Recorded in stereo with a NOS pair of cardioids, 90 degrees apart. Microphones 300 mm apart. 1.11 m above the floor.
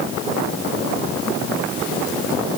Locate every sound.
Only background noise.